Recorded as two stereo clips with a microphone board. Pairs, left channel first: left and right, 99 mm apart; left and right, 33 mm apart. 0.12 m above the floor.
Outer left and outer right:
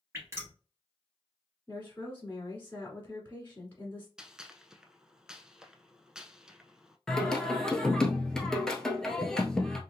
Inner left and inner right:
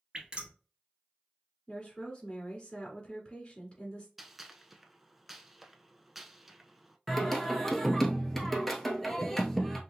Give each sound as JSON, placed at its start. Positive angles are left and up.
{"t": 0.1, "sound": "dripping", "side_deg": -25, "distance_m": 2.0}
{"t": 1.7, "sound": "a woman speaking", "side_deg": 20, "distance_m": 1.7}
{"t": 4.2, "sound": "a gunshot", "side_deg": -5, "distance_m": 0.5}
{"t": 7.1, "sound": "singing", "side_deg": 5, "distance_m": 1.0}